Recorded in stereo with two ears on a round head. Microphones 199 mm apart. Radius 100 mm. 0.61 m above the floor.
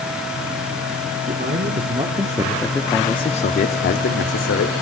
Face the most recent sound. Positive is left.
turn(degrees=60)  # may be behind; listen again after turning